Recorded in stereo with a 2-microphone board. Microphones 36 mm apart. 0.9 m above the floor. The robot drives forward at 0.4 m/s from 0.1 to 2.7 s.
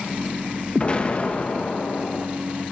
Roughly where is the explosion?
Left.